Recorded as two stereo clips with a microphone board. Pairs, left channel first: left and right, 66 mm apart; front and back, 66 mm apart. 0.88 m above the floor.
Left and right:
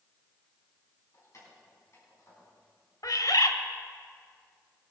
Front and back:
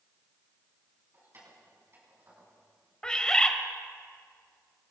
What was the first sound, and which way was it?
Keys jangling, 130° left.